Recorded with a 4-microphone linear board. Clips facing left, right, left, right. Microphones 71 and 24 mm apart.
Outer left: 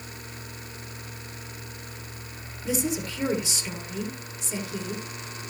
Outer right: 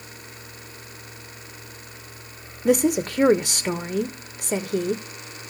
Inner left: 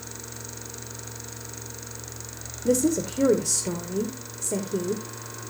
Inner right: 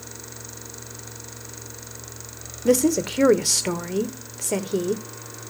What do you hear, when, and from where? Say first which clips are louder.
2.6 s a woman speaking: outer right 9 dB, inner right 4 dB; 60° right (ahead or behind), 1.2 m